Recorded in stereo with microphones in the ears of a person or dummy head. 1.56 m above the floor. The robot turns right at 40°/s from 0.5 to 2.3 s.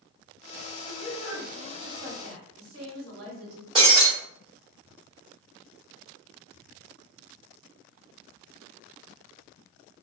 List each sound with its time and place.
0.8 s a woman speaking: 160° right, 1.3 m; by 3.6 s 100° right, 1.3 m
3.8 s breaking glass: 35° right (ahead or behind), 1.3 m